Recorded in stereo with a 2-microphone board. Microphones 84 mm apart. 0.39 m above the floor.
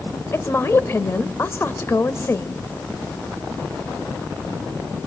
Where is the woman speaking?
30° left (ahead or behind), 1.3 m.